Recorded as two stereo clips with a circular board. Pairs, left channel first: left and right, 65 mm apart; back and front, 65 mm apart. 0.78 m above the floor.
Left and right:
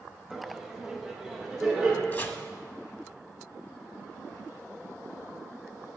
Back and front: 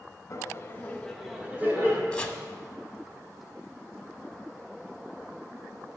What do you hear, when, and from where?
0.3 s laughter: 175° right, 1.1 m; by 2.0 s 10° right, 1.1 m
2.1 s chopping: 125° left, 0.7 m